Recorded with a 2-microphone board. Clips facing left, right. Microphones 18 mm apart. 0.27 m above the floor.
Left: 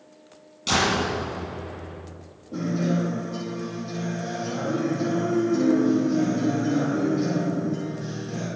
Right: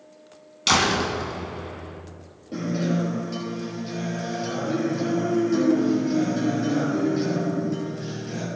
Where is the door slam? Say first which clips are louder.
Right 2 dB; 45° right (ahead or behind), 2 m.